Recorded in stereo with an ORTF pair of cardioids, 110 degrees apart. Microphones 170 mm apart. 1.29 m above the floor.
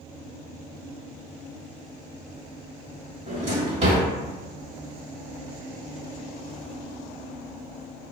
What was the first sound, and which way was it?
A drawer, 35° right.